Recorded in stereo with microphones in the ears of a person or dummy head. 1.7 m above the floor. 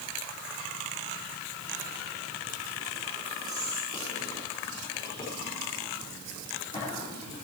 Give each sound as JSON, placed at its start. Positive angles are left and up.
{"t": 3.5, "sound": "whispering", "side_deg": 30, "distance_m": 6.0}